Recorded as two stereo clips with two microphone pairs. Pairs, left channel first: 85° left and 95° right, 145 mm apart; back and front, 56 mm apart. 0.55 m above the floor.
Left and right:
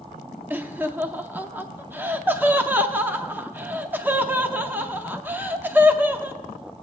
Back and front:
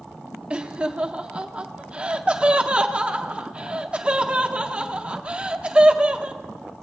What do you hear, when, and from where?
0.5 s laughter: 40° right, 0.7 m